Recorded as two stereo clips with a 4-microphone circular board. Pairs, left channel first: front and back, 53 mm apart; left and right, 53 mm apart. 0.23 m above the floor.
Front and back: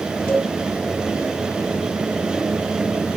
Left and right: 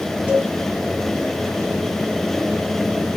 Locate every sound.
0.3 s a cowbell: 40° right, 2.5 m